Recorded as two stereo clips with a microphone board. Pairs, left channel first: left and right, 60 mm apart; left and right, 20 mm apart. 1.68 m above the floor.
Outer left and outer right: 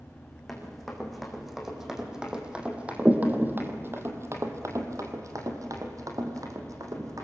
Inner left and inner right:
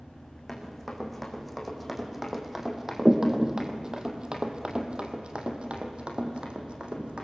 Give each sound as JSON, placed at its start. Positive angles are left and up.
{"t": 0.5, "sound": "running footsteps", "side_deg": 5, "distance_m": 6.0}